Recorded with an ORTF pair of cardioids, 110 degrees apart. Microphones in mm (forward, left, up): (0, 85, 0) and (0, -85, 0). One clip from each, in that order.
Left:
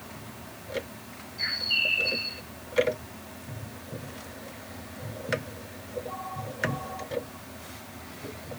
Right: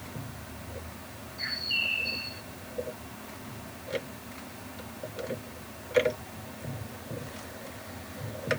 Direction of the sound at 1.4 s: 20° left.